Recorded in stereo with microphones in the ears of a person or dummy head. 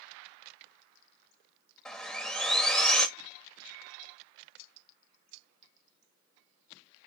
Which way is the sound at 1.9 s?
5° left (ahead or behind).